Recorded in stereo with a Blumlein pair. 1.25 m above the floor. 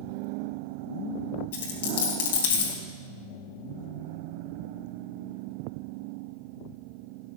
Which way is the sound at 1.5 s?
55° left.